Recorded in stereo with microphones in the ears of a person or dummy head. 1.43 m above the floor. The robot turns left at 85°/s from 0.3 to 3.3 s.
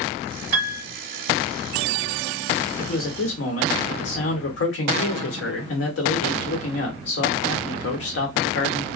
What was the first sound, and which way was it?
A piano, 10° right (ahead or behind).